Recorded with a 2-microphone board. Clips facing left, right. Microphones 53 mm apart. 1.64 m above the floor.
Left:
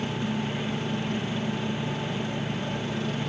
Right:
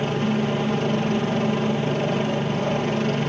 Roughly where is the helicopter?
Right.